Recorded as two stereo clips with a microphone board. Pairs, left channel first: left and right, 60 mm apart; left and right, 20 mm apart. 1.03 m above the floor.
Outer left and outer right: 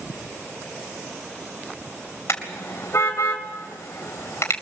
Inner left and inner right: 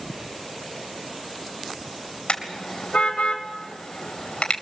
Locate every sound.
2.3 s a car horn: 50° left (ahead or behind), 3 m